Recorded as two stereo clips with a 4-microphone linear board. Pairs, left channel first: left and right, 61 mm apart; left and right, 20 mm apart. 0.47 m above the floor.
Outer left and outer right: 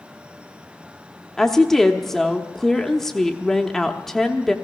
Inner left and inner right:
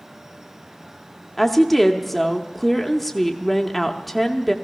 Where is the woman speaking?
5° left (ahead or behind), 0.8 m.